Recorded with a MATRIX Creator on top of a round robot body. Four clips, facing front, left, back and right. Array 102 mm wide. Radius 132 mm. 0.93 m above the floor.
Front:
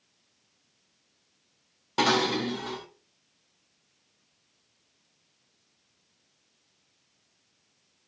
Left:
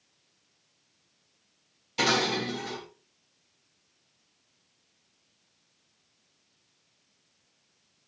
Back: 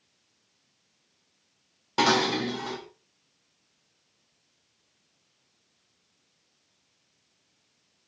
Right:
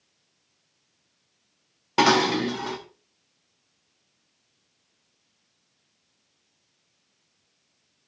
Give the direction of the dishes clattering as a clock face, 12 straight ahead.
3 o'clock.